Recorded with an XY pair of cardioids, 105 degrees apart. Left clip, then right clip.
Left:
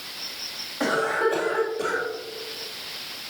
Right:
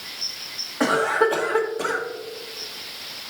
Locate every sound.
0.8 s a cough: 35° right, 2 m